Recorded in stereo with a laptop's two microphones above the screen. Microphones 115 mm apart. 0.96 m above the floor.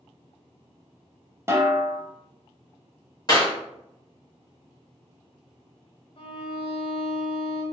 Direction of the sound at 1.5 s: 25° right (ahead or behind).